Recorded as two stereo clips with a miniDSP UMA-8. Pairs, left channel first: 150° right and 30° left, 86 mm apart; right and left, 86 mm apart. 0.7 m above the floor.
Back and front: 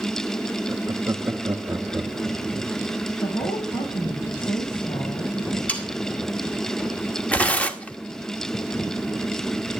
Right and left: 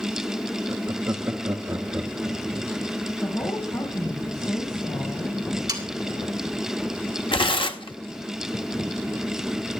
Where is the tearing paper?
75° right, 1.2 m.